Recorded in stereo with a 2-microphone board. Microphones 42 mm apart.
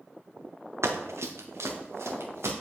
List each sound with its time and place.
0.8 s running footsteps: 80° right, 1.0 m